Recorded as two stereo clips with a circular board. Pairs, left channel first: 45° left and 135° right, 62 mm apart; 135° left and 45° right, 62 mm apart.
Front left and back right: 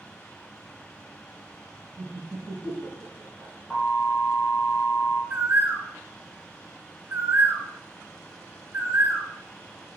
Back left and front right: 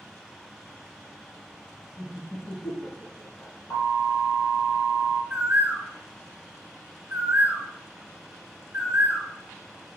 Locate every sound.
2.0 s laughter: 170° right, 2 m; by 3.5 s 165° left, 2 m
3.7 s an alarm: 125° left, 4 m
5.3 s a bird: 100° right, 1.7 m